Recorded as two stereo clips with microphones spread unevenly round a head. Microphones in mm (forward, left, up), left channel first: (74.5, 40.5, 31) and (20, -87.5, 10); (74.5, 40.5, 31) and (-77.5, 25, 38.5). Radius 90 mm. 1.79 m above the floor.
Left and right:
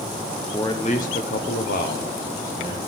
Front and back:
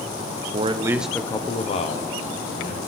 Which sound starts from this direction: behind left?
A man speaking, at 0.5 s.